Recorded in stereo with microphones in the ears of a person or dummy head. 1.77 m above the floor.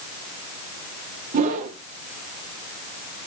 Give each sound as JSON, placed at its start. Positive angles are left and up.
{"t": 1.3, "sound": "a whoosh", "side_deg": -40, "distance_m": 1.0}